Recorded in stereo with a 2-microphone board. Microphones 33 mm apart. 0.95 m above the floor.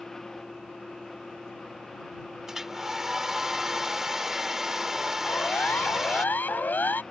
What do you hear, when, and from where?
2.5 s a hair dryer: 15° right (ahead or behind)
5.2 s a siren: 65° left (ahead or behind); by 7.0 s 70° left (ahead or behind)